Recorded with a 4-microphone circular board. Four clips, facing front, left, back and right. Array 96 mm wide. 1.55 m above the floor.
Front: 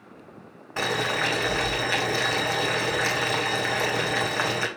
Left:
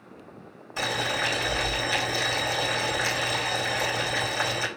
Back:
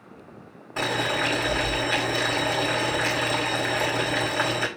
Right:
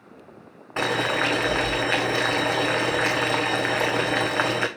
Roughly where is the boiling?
Right.